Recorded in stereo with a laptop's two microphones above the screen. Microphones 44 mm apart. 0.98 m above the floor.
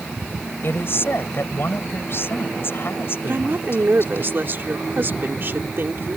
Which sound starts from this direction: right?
A woman speaking, at 3.2 s.